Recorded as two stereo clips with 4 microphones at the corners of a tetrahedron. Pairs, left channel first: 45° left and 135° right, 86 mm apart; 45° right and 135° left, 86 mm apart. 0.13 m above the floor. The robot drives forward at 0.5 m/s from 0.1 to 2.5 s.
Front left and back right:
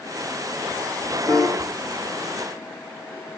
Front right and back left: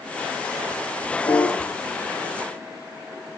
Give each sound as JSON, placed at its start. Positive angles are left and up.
{"t": 1.3, "sound": "a piano", "azimuth_deg": -25, "distance_m": 3.0}